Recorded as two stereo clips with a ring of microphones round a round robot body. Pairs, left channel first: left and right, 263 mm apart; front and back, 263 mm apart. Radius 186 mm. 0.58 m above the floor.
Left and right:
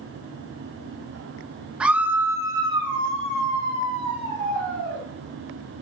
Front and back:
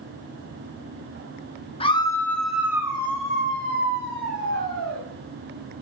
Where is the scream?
10° right, 1.1 m; by 5.0 s 150° right, 2.0 m.